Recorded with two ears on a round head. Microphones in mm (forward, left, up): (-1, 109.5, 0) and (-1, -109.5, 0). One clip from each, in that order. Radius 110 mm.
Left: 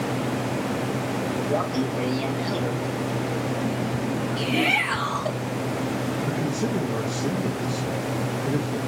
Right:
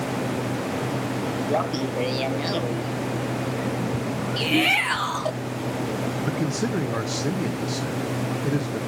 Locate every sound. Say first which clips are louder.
1.5 s laughter: right 2 dB; 35° right (ahead or behind), 1.1 m
4.4 s a shout: right 2 dB; 75° right (ahead or behind), 2.5 m
6.3 s a man speaking: even; 75° right (ahead or behind), 1.0 m